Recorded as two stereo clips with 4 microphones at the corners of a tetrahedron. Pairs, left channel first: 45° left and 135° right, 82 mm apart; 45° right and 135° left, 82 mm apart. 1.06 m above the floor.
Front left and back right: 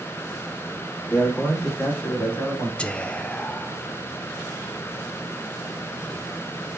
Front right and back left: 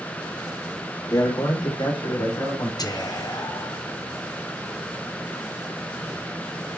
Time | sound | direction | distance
1.1 | a man speaking | 15° right | 3 m
2.8 | whispering | 25° right | 0.8 m